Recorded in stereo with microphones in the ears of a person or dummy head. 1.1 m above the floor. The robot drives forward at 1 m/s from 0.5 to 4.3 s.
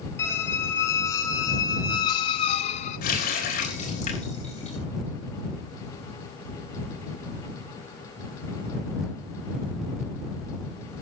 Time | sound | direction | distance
0.2 | a squeak | 10° left (ahead or behind) | 3 m
3.0 | a running tap | 55° left (ahead or behind) | 3.5 m